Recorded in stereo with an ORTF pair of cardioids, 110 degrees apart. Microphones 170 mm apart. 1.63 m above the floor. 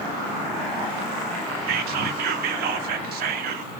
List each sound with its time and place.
1.7 s whispering: 65° right, 0.6 m